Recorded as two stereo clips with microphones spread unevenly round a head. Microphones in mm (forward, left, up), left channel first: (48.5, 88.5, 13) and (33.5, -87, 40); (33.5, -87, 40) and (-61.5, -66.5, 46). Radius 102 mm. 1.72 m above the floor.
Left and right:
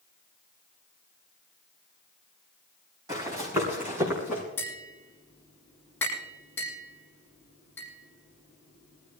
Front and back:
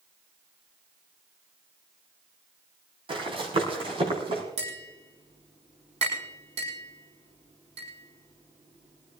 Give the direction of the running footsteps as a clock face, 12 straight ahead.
6 o'clock.